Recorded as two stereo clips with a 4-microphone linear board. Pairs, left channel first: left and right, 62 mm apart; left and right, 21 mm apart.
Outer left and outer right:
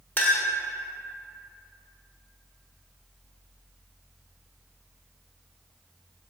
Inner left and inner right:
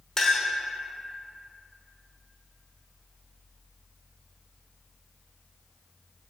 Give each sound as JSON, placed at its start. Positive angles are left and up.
{"t": 0.2, "sound": "a clink", "side_deg": 30, "distance_m": 1.2}